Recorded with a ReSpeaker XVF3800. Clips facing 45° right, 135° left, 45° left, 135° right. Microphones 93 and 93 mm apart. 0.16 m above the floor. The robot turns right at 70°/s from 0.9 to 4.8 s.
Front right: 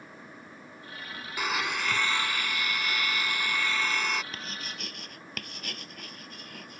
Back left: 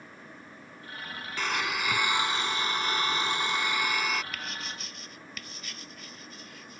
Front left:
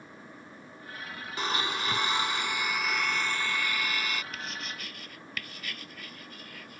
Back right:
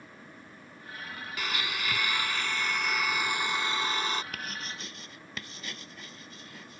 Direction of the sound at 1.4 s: 25° left.